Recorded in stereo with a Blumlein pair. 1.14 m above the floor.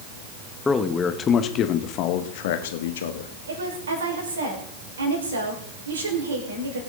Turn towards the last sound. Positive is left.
turn(degrees=-70)